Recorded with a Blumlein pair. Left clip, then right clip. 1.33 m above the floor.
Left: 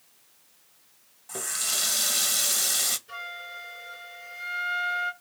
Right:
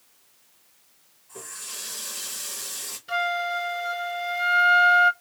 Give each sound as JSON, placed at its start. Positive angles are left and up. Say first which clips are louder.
{"t": 1.3, "sound": "a running tap", "louder": "left 9 dB", "azimuth_deg": 50, "distance_m": 1.0}
{"t": 3.1, "sound": "a flute", "louder": "right 12 dB", "azimuth_deg": -55, "distance_m": 1.3}